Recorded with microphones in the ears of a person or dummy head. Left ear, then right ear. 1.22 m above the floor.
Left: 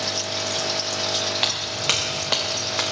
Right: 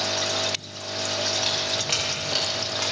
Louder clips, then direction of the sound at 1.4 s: Left 1 dB; 70° left (ahead or behind).